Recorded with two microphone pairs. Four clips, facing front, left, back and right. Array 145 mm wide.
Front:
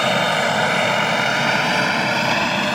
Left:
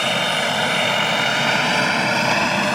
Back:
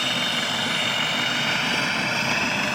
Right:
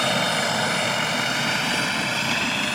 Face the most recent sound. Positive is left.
turn(degrees=55)